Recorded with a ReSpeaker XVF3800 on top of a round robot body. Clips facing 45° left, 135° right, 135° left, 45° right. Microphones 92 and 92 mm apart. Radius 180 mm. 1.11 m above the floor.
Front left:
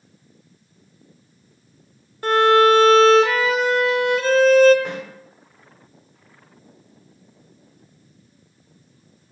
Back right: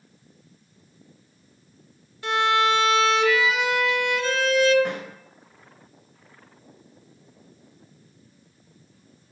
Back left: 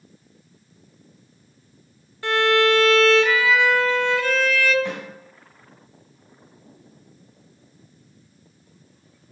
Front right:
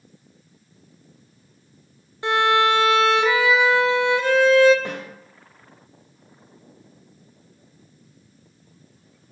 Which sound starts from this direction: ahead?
A violin, at 2.2 s.